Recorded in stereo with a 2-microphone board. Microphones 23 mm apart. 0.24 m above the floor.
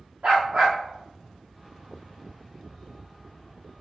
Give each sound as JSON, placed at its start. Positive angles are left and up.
{"t": 0.2, "sound": "a dog barking", "side_deg": -70, "distance_m": 5.0}